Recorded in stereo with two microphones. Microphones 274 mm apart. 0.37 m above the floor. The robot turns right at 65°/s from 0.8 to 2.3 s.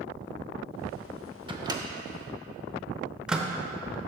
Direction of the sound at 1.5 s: 20° right (ahead or behind).